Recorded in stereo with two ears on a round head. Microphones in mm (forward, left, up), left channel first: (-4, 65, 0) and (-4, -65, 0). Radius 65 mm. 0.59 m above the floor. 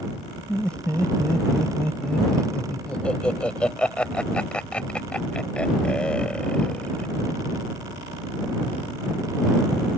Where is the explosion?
No explosion in this recording.